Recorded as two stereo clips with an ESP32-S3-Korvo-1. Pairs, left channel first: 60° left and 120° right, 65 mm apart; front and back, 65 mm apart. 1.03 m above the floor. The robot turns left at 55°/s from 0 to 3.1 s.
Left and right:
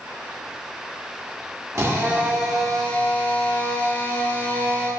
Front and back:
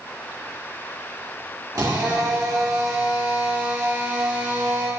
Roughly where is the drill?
Behind.